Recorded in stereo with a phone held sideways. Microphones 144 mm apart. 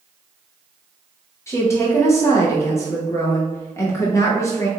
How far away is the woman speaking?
About 0.8 m.